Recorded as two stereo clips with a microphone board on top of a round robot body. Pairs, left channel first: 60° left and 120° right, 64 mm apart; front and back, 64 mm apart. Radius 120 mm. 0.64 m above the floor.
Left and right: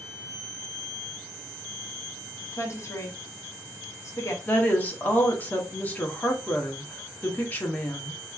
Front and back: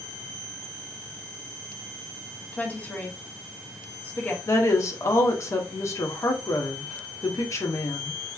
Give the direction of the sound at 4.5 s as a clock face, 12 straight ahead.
12 o'clock.